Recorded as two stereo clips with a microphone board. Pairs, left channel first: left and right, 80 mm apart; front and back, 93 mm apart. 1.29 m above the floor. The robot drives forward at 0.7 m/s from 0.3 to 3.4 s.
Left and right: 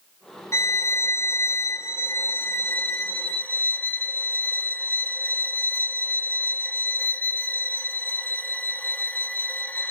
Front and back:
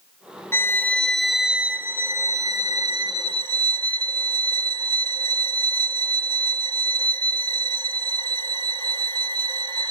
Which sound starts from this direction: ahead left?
A violin, at 0.5 s.